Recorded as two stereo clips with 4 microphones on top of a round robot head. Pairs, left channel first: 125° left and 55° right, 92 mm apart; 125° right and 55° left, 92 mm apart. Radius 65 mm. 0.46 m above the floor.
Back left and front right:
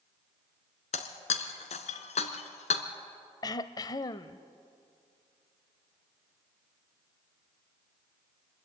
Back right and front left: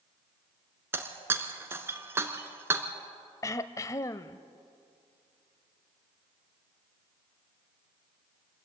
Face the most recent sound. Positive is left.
turn(degrees=175)